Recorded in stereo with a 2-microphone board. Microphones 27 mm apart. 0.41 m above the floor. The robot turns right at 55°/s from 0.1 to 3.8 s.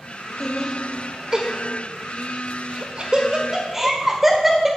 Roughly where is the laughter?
Centre.